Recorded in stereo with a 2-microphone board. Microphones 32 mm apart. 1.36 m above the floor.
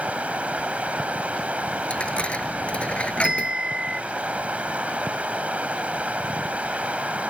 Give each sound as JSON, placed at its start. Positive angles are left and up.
{"t": 0.0, "sound": "running water", "side_deg": -45}
{"t": 1.9, "sound": "a dropped coin", "side_deg": 45}
{"t": 3.2, "sound": "a bell", "side_deg": -30}